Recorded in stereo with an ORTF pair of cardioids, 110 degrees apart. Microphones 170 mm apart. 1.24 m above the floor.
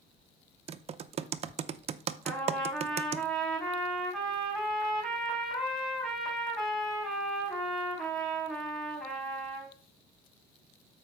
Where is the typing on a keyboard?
35° right, 0.6 m.